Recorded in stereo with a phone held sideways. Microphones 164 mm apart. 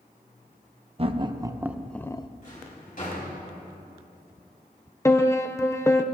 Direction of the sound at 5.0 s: 20° left (ahead or behind).